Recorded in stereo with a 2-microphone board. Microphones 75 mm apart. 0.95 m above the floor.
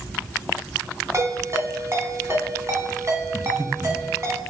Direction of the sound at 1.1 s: 40° right (ahead or behind).